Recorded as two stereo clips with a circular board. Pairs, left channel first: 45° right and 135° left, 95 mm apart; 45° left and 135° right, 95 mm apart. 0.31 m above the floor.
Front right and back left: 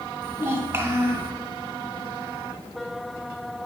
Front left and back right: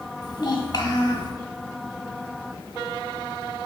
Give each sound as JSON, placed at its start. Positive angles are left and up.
{"t": 0.2, "sound": "a child speaking", "azimuth_deg": 80, "distance_m": 1.6}